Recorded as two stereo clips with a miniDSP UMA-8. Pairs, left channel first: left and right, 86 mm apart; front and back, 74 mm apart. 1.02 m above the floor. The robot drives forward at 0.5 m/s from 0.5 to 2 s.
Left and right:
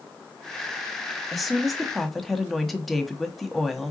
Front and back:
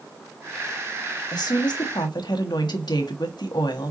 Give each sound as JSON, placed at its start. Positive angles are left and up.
{"t": 1.3, "sound": "a woman speaking", "azimuth_deg": 0, "distance_m": 1.8}